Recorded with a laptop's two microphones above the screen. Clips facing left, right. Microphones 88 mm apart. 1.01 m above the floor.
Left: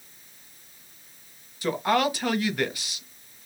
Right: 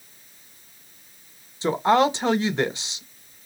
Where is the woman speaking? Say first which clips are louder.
Right 5 dB; 25° right (ahead or behind), 0.8 m.